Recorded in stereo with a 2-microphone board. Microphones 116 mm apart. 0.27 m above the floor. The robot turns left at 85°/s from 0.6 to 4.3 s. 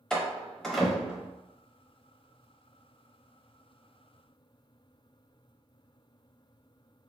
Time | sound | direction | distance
0.1 | a door slam | 5° left (ahead or behind) | 0.6 m